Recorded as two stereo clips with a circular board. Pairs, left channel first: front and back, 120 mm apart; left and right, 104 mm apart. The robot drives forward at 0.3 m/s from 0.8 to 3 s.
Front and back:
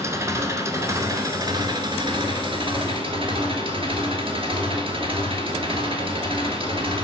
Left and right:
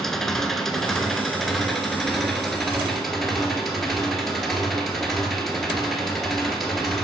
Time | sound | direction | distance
0.0 | an engine running | 175° left | 1.1 m